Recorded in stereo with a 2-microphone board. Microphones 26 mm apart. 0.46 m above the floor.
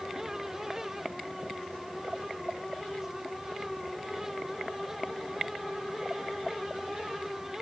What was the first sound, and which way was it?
Only background noise.